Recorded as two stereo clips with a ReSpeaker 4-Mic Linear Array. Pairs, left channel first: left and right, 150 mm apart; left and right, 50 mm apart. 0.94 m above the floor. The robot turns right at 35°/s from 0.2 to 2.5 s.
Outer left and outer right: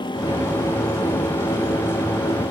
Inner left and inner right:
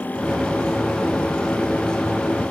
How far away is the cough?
I don't hear a cough.